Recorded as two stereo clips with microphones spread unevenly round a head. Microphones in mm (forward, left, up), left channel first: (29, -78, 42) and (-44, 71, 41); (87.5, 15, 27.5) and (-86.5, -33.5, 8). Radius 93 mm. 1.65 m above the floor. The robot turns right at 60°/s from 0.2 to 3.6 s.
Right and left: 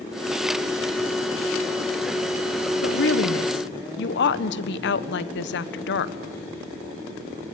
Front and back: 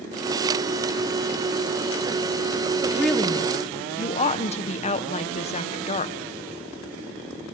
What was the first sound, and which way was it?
A woman speaking, 90° right.